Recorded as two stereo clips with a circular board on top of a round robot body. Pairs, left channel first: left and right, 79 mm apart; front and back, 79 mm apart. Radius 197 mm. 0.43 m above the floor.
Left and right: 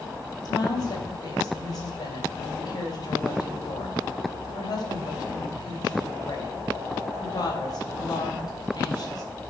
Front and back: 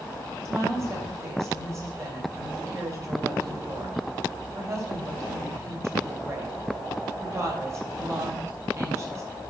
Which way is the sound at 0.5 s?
130° left.